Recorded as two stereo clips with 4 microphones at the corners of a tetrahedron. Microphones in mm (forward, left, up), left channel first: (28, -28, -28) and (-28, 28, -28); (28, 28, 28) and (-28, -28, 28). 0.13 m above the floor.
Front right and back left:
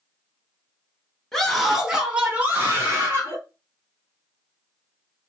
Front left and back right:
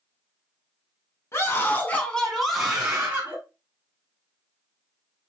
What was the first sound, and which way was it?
A scream, 35° left.